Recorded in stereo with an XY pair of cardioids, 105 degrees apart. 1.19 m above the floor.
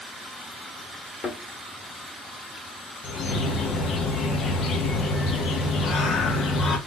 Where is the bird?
60° left, 1.0 m.